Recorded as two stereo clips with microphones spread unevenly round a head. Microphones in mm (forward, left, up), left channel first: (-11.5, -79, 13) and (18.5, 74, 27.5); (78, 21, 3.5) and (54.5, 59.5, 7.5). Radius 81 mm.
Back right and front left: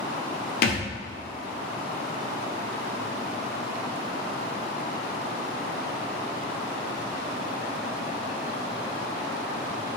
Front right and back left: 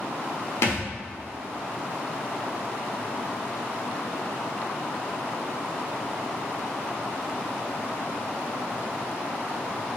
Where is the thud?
75° right, 1.4 m.